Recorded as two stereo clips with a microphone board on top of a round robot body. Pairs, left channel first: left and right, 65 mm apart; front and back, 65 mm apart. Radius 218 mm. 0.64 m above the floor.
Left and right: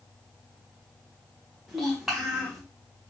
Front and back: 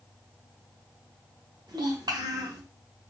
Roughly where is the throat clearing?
No throat clearing in this recording.